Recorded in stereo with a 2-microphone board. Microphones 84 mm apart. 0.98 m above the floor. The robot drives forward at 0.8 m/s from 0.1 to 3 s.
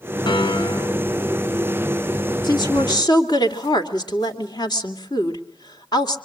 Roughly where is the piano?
Left.